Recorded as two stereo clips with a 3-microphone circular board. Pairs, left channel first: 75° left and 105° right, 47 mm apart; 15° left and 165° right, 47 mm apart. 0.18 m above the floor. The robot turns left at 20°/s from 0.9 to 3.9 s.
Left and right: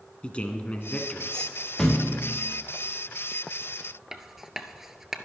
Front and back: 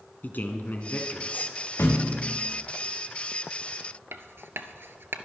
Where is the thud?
Straight ahead, 3.5 m; by 2.4 s 10° right, 3.5 m.